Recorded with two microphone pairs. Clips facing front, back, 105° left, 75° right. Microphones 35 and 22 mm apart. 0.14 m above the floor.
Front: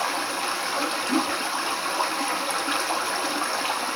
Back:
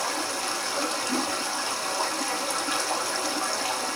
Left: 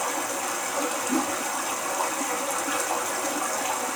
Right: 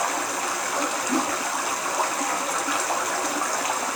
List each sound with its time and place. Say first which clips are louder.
0.0 s running water: front 3 dB, right 3 dB; 35° right, 0.8 m
1.1 s a whoosh: front 7 dB, right 1 dB; straight ahead, 0.6 m